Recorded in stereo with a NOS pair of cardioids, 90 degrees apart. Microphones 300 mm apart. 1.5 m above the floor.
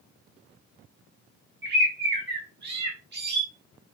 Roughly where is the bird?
Ahead right.